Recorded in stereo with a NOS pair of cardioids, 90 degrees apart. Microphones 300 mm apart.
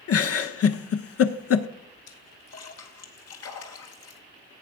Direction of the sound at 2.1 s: 60° left.